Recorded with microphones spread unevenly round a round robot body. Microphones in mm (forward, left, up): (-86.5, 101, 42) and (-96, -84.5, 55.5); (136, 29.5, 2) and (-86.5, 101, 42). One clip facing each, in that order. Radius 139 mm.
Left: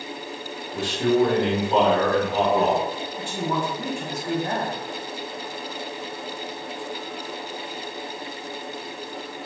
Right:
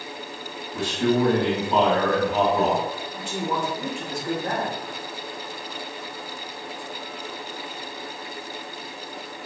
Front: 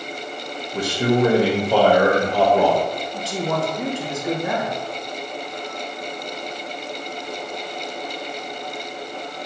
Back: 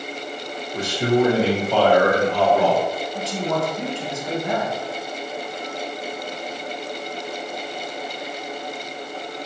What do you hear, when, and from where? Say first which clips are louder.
0.7 s a man speaking: left 1 dB, even; 15° left, 1.7 m
3.1 s a man speaking: left 1 dB, front 1 dB; 15° right, 3 m